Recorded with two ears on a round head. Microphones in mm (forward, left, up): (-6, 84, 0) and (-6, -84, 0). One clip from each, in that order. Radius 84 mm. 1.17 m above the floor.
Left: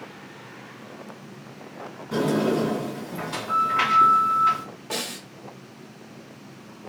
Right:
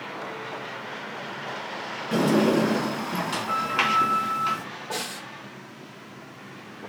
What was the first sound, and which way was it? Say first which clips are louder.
A sliding door: right 2 dB; 35° right (ahead or behind).